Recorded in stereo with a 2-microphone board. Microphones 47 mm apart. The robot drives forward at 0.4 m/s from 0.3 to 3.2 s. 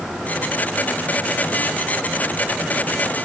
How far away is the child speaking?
No child speaking in this recording.